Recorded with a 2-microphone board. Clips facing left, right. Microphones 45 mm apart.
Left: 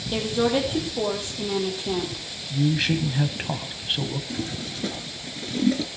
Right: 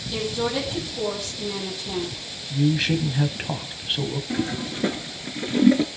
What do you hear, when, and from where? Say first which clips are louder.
0.1 s a woman speaking: left 3 dB; 30° left (ahead or behind), 7.5 m
2.5 s a man speaking: right 1 dB; centre (ahead or behind), 1.7 m
4.3 s a toilet flushing: right 5 dB; 35° right (ahead or behind), 1.1 m